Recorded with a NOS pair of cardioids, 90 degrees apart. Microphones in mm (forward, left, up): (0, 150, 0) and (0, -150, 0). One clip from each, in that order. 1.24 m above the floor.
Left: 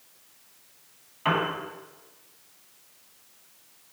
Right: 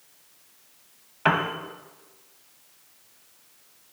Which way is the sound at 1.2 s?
45° right.